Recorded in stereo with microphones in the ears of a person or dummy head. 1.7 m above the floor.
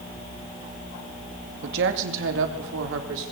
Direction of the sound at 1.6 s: 65° right (ahead or behind).